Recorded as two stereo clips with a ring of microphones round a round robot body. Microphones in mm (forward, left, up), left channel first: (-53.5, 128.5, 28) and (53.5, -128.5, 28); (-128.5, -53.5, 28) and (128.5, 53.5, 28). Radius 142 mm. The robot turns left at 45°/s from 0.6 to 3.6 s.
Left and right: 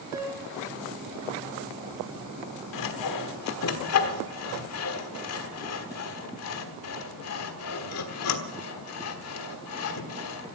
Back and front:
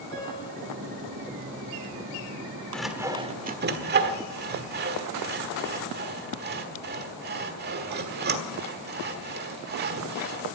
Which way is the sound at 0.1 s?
10° left.